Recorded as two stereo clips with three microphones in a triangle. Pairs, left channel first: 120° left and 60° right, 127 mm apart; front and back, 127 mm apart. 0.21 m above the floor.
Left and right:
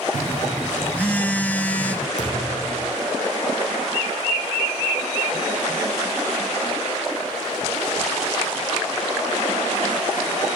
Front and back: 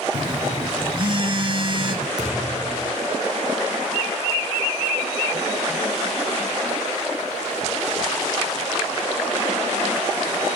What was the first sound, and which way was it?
A phone buzzing, 165° right.